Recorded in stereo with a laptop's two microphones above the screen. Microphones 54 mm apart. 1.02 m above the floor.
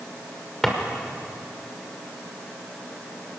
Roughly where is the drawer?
Centre.